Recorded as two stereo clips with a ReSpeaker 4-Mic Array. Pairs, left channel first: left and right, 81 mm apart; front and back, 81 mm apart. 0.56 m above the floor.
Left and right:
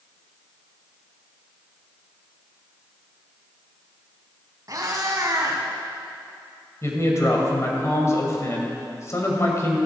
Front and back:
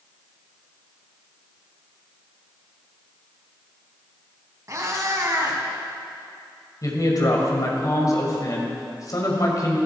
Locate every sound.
4.7 s a cat meowing: 135° right, 1.7 m
6.8 s a man speaking: 40° left, 2.5 m